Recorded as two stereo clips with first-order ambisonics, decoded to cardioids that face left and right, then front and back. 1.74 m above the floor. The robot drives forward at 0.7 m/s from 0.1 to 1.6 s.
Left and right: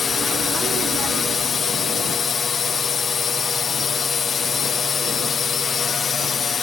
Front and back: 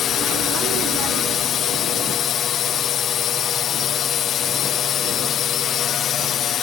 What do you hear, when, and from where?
0.0 s a drone: 30° left